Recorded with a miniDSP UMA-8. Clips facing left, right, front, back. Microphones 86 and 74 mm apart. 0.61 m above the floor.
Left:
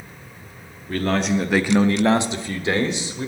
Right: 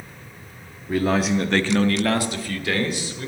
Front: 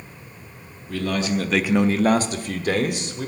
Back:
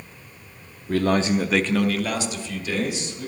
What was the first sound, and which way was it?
A man speaking, 165° right.